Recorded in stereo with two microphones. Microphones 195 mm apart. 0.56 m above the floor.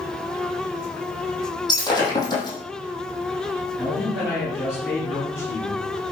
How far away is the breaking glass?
About 5 m.